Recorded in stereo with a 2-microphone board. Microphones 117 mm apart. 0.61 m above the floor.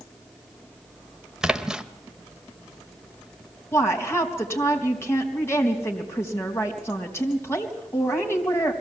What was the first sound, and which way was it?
A splash, 5° right (ahead or behind).